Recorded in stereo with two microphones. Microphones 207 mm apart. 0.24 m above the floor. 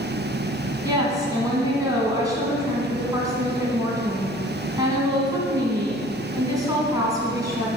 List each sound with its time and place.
0.8 s a woman speaking: 15° right (ahead or behind), 2.5 m